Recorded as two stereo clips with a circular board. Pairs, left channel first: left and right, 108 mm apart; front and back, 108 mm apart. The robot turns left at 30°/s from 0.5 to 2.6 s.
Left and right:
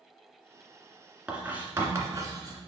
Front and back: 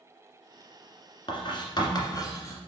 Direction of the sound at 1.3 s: 10° right.